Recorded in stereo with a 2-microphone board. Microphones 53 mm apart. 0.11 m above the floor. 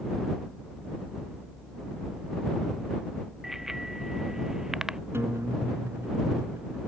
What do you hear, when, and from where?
3.4 s a bicycle bell: 5° right (ahead or behind); by 5.0 s 10° right (ahead or behind)
5.1 s a guitar: 50° right (ahead or behind)